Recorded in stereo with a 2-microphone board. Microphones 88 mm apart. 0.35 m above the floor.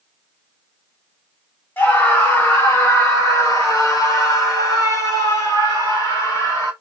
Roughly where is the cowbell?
I don't hear a cowbell.